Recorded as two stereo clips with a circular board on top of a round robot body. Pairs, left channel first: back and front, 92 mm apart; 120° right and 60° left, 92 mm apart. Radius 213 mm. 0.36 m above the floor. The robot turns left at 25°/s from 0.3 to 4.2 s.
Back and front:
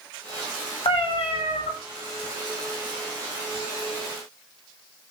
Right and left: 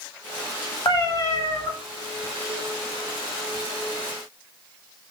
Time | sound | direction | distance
0.8 | a cat meowing | 165° right | 1.3 m